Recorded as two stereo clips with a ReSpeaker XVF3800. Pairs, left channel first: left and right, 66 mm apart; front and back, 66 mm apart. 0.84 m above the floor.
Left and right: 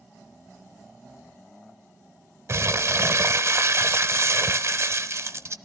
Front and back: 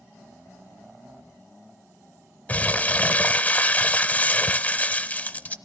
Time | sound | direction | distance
2.5 | crumpling | 60° right | 0.9 m